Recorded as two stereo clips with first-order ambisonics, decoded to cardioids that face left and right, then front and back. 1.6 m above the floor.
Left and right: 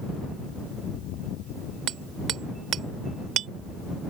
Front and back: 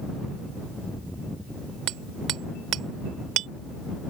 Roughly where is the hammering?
Behind right.